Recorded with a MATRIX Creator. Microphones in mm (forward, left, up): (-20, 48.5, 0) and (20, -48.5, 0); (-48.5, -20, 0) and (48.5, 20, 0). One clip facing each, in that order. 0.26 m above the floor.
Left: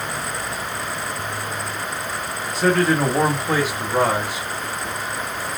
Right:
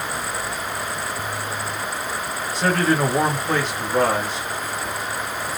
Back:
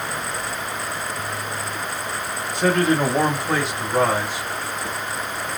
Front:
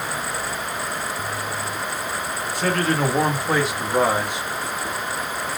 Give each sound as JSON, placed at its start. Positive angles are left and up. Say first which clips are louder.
{"t": 2.5, "sound": "a man speaking", "louder": "left 2 dB, back 4 dB", "azimuth_deg": -160, "distance_m": 1.4}